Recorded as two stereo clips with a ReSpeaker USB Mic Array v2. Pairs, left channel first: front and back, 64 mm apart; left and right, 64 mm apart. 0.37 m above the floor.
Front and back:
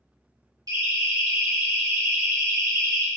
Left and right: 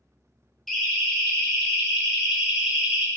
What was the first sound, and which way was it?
A siren, 175° left.